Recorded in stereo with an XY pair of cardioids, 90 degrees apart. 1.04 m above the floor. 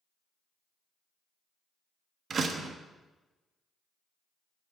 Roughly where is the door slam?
Ahead right.